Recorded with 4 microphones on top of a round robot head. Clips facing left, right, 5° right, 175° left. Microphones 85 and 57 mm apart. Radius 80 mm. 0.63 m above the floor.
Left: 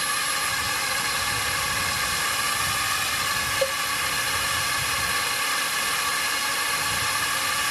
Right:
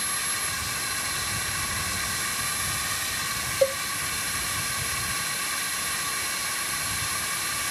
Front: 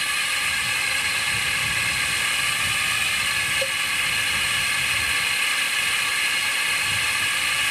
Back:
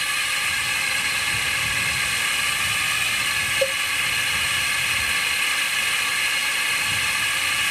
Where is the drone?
90° left.